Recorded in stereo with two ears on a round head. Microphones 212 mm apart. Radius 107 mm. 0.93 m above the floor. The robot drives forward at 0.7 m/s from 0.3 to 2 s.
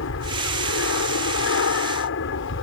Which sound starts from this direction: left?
An aircraft, at 0.0 s.